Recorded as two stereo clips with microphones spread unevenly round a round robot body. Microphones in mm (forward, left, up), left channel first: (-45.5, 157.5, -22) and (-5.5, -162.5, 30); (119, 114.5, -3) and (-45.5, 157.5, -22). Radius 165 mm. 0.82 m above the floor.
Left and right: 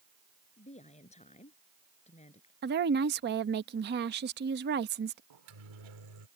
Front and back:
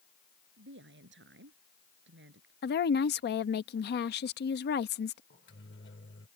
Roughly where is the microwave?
Right.